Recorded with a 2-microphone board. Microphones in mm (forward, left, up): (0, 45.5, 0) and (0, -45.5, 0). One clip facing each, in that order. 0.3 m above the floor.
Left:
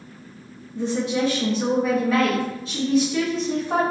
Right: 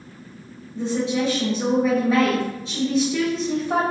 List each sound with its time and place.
0.8 s a woman speaking: 25° right (ahead or behind), 1.9 m